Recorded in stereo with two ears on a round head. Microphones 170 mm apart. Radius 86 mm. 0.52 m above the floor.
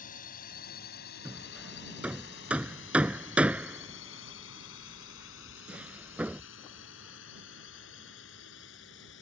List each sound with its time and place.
0.0 s a drone: 50° left (ahead or behind); by 9.2 s 65° left (ahead or behind)
1.2 s hammering: 5° right (ahead or behind)